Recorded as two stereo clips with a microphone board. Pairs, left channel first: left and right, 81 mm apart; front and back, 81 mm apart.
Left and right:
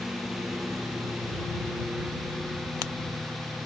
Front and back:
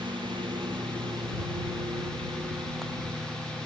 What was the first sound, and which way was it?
A lawn mower, 175° right.